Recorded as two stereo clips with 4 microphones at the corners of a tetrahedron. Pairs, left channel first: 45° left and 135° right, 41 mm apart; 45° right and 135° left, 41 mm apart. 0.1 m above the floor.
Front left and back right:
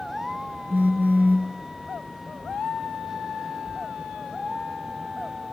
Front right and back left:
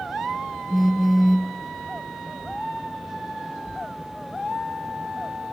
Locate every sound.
0.7 s a phone buzzing: 135° right, 0.5 m